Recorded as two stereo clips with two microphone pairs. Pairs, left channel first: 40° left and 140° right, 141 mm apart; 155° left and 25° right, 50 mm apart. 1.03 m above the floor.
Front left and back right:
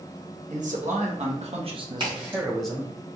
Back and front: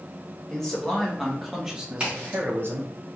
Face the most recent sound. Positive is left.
turn(degrees=-90)